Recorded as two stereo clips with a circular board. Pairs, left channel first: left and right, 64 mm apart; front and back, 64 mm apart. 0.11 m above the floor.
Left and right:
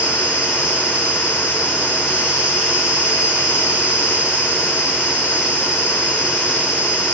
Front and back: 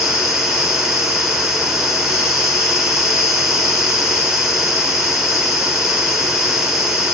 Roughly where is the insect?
Right.